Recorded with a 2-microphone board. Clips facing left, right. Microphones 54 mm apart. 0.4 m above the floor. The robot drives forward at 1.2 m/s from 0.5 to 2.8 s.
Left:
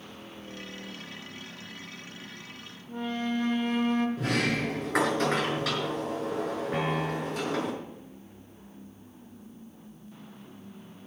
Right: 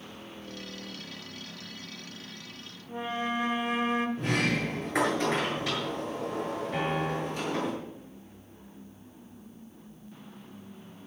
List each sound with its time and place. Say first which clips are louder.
2.9 s a flute: even; 15° right (ahead or behind), 1.0 m
4.2 s a sliding door: even; 80° left, 5.5 m
6.7 s a piano: right 1 dB; 65° left (ahead or behind), 6.5 m